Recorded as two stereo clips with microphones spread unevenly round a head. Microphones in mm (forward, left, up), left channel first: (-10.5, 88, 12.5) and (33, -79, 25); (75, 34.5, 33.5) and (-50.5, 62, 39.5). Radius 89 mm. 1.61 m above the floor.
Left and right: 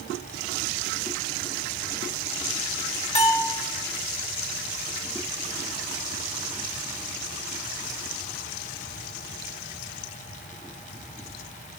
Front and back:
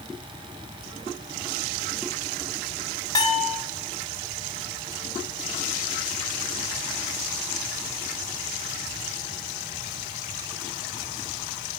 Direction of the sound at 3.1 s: 50° left.